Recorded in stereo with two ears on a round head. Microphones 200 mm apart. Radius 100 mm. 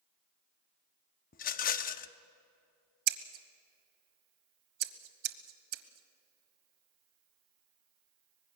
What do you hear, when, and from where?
1.3 s a rattle: 40° left (ahead or behind), 0.7 m
3.1 s scissors: 75° right (ahead or behind), 1.3 m